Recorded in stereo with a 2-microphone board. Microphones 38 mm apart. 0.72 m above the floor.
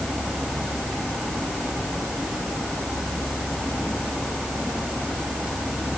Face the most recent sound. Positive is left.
No sound to turn to.